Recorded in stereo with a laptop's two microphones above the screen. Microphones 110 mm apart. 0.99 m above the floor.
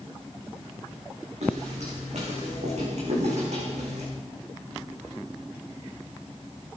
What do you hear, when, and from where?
1.4 s footsteps: 75° right (ahead or behind), 5 m